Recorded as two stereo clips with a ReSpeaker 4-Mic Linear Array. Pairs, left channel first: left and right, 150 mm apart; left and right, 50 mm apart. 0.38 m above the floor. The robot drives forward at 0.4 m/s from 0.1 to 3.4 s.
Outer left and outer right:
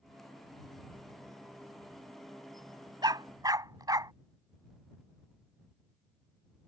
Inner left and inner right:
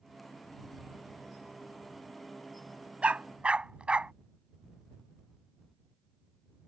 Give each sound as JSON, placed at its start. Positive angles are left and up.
{"t": 3.0, "sound": "a dog barking", "side_deg": -30}